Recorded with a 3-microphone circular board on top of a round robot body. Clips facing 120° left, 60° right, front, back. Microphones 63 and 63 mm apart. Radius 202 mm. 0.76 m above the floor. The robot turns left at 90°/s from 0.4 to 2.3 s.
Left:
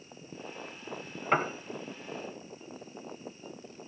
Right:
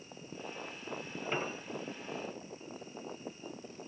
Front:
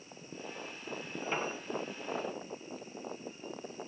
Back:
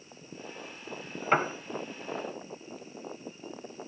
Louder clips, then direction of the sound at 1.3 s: Left 9 dB, back 10 dB; 145° left.